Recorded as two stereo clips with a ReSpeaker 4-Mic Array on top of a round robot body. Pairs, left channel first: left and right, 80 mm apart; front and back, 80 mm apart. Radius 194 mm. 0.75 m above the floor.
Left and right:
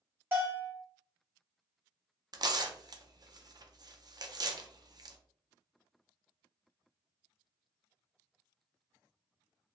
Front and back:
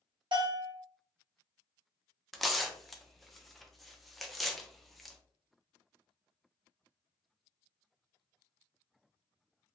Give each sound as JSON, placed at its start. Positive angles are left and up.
{"t": 0.3, "sound": "a bell", "azimuth_deg": -155, "distance_m": 1.0}
{"t": 2.3, "sound": "tearing paper", "azimuth_deg": -90, "distance_m": 0.6}